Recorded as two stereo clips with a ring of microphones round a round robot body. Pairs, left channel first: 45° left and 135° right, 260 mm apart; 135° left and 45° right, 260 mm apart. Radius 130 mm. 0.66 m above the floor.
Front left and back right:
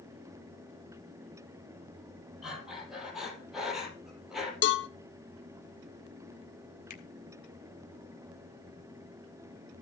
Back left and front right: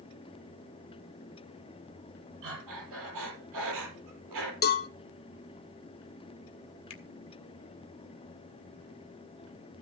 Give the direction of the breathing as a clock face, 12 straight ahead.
2 o'clock.